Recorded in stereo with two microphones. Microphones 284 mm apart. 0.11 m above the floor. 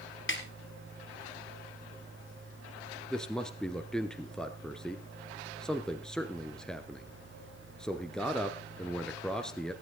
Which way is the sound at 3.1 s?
5° left (ahead or behind).